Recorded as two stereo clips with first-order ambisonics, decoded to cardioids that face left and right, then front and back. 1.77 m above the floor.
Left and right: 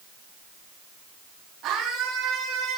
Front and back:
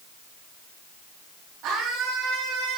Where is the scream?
135° right, 10 m.